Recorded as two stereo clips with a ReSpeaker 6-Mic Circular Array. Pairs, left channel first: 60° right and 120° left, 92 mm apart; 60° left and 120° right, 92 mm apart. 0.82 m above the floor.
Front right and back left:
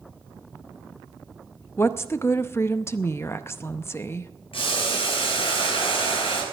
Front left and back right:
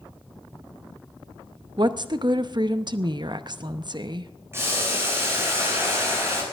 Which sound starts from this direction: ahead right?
Boiling, at 4.5 s.